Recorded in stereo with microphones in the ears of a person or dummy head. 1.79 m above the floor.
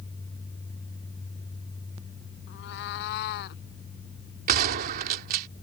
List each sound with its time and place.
2.5 s a cat meowing: 60° left (ahead or behind); by 3.6 s 55° left (ahead or behind)
4.5 s a gunshot: 50° right (ahead or behind)